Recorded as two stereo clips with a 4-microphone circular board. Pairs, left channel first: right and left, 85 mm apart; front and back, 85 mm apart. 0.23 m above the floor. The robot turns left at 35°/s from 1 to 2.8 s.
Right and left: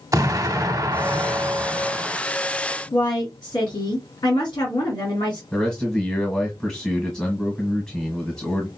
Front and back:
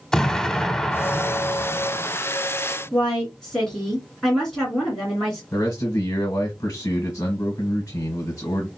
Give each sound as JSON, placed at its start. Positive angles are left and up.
{"t": 0.1, "sound": "an explosion", "azimuth_deg": 80, "distance_m": 0.7}
{"t": 2.9, "sound": "a woman speaking", "azimuth_deg": -85, "distance_m": 3.0}
{"t": 5.5, "sound": "a man speaking", "azimuth_deg": -20, "distance_m": 1.4}